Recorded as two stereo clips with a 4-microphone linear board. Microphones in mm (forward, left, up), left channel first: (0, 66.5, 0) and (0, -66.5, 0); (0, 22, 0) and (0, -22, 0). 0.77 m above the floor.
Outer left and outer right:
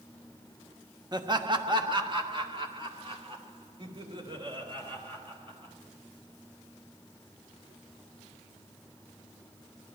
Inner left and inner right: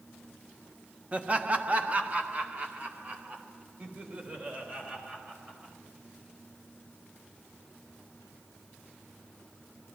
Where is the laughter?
30° right (ahead or behind), 1.2 m; by 5.7 s 40° right (ahead or behind), 4.5 m.